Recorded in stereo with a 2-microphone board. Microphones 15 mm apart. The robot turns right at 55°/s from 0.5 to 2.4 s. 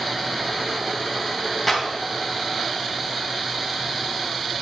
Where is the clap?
Centre (ahead or behind), 3.5 m; by 1.8 s 5° right (ahead or behind), 3.5 m.